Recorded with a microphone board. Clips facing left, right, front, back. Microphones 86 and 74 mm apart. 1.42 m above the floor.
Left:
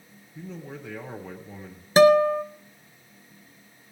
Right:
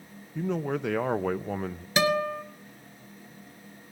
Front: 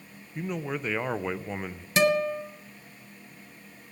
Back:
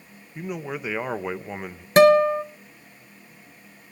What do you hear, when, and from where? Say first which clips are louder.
0.3 s a man speaking: right 10 dB, back 1 dB; 100° right, 0.6 m
2.0 s a guitar: left 10 dB, back 9 dB; 140° left, 1.0 m